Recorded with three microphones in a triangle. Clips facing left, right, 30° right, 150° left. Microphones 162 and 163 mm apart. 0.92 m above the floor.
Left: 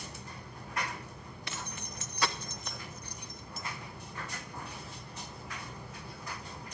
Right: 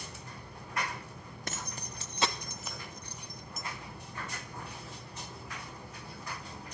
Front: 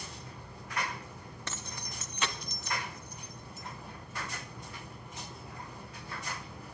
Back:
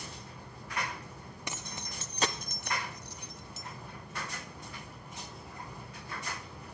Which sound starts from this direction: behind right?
Keys jangling, at 1.5 s.